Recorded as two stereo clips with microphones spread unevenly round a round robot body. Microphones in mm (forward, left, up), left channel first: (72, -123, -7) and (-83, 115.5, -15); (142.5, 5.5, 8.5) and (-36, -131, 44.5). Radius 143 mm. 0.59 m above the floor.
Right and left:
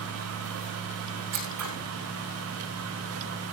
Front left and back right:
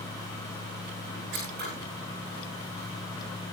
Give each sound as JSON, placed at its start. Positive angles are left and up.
{"t": 1.3, "sound": "scissors", "azimuth_deg": 160, "distance_m": 7.5}